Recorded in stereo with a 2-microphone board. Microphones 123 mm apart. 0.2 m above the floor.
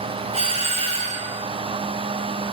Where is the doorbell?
55° right (ahead or behind), 7.5 m.